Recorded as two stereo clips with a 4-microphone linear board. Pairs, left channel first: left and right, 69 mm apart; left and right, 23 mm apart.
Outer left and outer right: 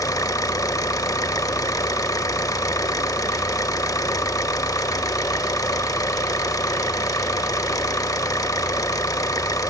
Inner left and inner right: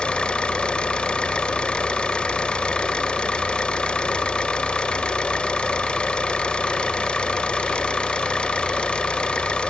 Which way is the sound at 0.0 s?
55° left (ahead or behind).